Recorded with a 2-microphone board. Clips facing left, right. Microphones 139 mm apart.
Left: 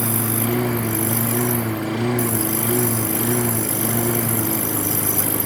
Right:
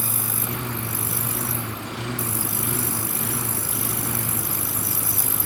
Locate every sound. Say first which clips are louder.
0.0 s a lawn mower: left 10 dB; 85° left